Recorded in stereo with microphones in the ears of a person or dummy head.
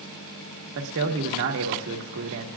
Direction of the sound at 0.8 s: 60° right (ahead or behind).